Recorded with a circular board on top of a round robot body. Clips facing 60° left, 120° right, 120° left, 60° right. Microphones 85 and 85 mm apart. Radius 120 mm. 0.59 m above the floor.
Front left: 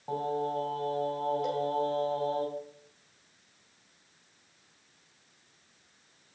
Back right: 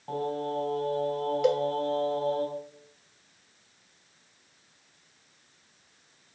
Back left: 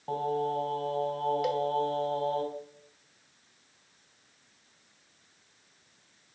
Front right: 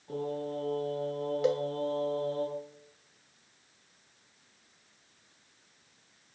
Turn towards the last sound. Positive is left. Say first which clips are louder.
# back right 7 dB, front right 1 dB
turn(degrees=-120)